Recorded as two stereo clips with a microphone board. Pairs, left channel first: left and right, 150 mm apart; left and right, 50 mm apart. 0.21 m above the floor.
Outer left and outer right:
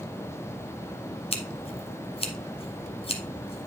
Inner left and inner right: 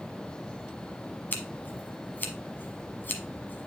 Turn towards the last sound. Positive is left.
turn(degrees=40)  # may be behind; listen again after turning